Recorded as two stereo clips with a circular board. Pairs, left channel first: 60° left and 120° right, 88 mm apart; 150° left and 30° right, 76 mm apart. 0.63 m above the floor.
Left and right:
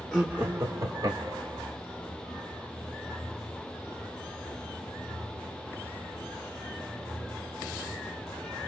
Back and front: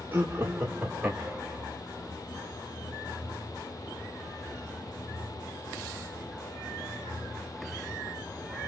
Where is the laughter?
30° right, 0.7 m; by 1.6 s 115° right, 1.4 m.